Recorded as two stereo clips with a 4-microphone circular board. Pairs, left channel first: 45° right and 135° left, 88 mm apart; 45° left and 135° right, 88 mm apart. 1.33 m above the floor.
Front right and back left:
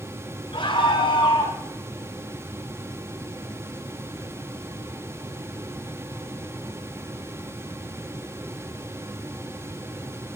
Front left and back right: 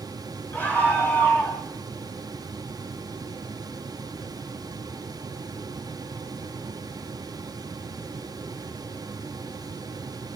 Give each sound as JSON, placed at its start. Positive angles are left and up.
{"t": 0.5, "sound": "a scream", "azimuth_deg": -25, "distance_m": 6.0}